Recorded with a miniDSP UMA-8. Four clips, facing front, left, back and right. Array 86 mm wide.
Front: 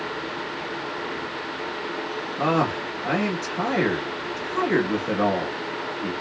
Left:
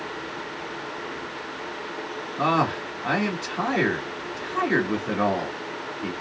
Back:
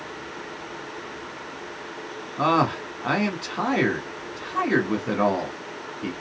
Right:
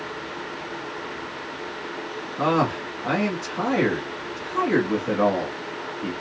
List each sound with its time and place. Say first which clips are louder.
2.4 s a man speaking: right 1 dB, back 2 dB; 165° left, 1.3 m